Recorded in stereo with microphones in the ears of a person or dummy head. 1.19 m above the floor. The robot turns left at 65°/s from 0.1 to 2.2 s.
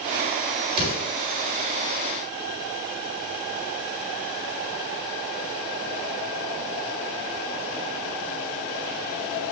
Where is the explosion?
35° right (ahead or behind), 4 m; by 1.1 s 55° right (ahead or behind), 4 m.